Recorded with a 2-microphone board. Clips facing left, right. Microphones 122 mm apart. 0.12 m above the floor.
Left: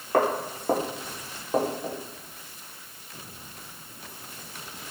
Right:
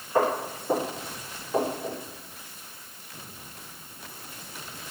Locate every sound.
0.1 s footsteps: 80° left, 1.5 m; by 2.0 s 20° left (ahead or behind), 1.9 m